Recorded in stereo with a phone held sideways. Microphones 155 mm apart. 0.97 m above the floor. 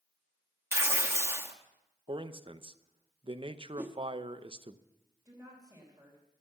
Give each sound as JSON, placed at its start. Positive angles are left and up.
{"t": 0.7, "sound": "tearing paper", "side_deg": -15, "distance_m": 1.1}
{"t": 2.1, "sound": "a man speaking", "side_deg": -35, "distance_m": 0.6}
{"t": 3.8, "sound": "a whoosh", "side_deg": -10, "distance_m": 1.1}
{"t": 5.2, "sound": "a woman speaking", "side_deg": -15, "distance_m": 4.0}